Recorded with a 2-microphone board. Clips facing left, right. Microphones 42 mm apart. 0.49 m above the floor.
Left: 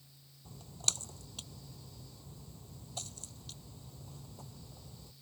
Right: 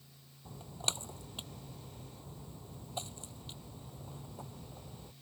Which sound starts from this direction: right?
A splash, at 0.5 s.